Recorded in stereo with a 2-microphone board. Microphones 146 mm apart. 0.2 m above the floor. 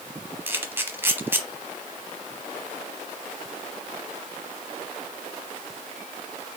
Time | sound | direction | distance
0.5 | a camera shutter | 15° right (ahead or behind) | 0.9 m